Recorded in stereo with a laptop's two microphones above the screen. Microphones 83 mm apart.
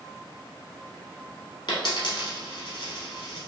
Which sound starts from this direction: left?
A dropped coin, at 1.7 s.